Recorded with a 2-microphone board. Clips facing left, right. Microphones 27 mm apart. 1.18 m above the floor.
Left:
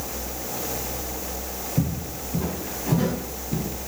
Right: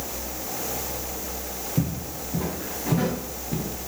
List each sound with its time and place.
1.8 s footsteps: 55° right (ahead or behind), 5 m; by 3.7 s 45° right (ahead or behind), 4.5 m